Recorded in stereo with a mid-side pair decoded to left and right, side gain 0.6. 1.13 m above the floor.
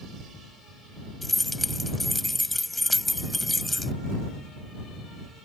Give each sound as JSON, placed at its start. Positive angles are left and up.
{"t": 1.2, "sound": "keys jangling", "azimuth_deg": 5}